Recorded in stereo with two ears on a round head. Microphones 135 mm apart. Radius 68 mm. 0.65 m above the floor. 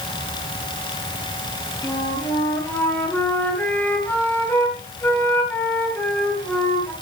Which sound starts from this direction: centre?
A flute, at 1.8 s.